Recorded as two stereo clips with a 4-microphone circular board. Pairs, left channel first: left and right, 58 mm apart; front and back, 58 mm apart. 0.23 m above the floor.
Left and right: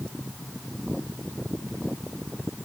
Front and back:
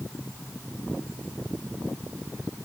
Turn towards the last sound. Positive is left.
No sound to turn to.